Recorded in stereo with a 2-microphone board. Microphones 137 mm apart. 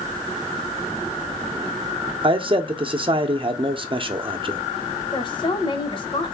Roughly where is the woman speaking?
Left.